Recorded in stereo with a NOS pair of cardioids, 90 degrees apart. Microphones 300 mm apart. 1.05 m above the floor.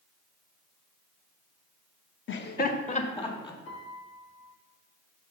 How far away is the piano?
About 2.5 m.